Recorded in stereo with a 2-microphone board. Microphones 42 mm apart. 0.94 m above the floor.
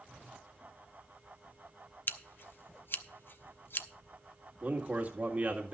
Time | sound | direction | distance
2.1 | scissors | 60° left (ahead or behind) | 0.7 m
4.6 | a man speaking | 40° right (ahead or behind) | 1.8 m